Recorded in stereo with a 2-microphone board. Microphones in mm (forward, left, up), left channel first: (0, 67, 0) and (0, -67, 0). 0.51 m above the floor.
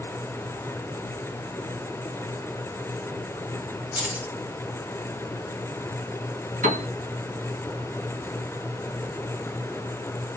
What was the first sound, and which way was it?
Keys jangling, 15° right (ahead or behind).